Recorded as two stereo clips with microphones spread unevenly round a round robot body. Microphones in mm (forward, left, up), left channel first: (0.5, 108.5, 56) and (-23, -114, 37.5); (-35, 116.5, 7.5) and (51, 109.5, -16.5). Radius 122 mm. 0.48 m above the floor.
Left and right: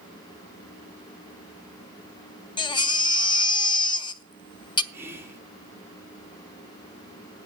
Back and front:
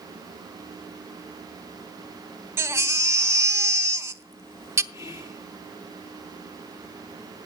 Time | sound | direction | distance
2.6 | a baby crying | 15° left | 0.7 m
4.9 | whispering | 160° right | 1.5 m